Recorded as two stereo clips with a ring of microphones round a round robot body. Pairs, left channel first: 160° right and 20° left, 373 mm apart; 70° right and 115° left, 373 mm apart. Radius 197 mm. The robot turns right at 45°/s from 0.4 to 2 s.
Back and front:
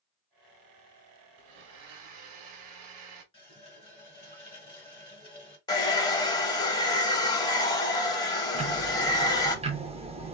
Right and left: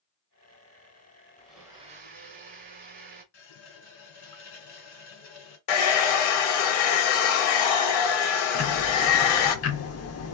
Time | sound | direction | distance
1.4 | a blender | 15° left | 1.1 m
3.3 | a running tap | 80° right | 1.6 m
5.7 | a hair dryer | 80° right | 0.8 m
8.6 | ticking | 45° right | 0.7 m